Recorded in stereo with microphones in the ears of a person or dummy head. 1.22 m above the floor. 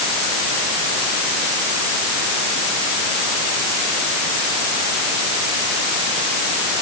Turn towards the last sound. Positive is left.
No sound to turn to.